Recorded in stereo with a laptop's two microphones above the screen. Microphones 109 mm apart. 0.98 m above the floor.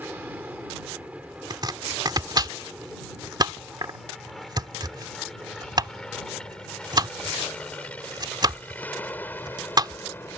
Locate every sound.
0.0 s an aircraft: 15° right (ahead or behind); by 10.4 s 15° left (ahead or behind)
1.5 s chopping: 40° right (ahead or behind)